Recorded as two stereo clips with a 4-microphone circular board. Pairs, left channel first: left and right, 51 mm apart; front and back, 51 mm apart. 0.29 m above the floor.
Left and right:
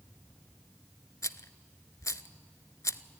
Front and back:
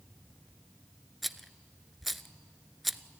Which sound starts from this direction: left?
A rattle, at 1.2 s.